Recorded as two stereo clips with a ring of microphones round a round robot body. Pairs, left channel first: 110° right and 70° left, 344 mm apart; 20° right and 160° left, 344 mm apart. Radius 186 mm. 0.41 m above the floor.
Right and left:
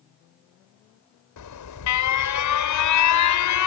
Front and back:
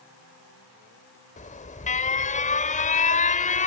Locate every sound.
1.4 s an alarm: 90° right